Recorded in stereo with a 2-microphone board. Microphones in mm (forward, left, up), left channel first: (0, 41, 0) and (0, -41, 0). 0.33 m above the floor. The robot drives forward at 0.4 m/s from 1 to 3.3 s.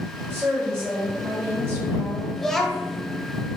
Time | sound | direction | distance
0.3 | a woman speaking | 30° right (ahead or behind) | 1.0 m
2.4 | a child speaking | 5° left (ahead or behind) | 0.8 m